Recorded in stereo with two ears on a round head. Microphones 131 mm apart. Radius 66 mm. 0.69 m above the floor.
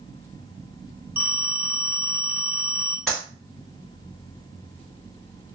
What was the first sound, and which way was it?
A phone ringing, 15° right (ahead or behind).